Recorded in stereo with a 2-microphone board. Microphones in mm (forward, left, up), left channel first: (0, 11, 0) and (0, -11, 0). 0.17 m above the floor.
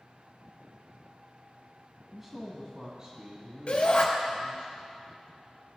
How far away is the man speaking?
About 1.4 m.